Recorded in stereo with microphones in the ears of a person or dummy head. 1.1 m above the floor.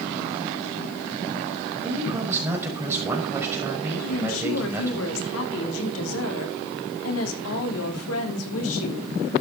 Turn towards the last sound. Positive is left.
turn(degrees=80)